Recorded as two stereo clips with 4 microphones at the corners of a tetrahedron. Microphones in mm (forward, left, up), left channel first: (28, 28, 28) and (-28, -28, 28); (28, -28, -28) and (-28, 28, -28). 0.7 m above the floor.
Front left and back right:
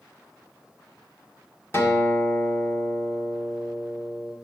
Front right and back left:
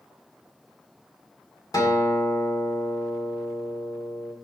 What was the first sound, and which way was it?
A guitar, 10° right.